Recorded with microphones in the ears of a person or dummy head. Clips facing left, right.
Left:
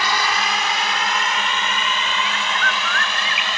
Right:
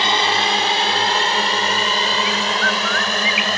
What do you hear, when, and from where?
0.0 s a drone: 25° right (ahead or behind); by 3.6 s 40° right (ahead or behind)
2.2 s a bird: centre (ahead or behind)